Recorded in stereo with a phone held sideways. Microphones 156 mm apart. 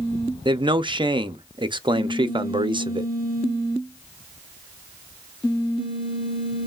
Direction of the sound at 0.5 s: 30° right (ahead or behind).